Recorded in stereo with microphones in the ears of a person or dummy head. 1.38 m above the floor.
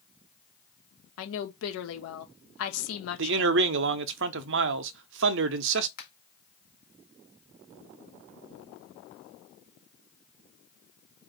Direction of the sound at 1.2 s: 80° left.